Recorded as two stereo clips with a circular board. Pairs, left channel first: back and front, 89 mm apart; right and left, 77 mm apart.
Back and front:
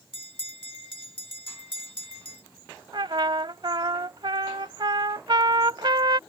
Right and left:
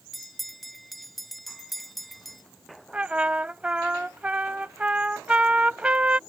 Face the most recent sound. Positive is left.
turn(degrees=15)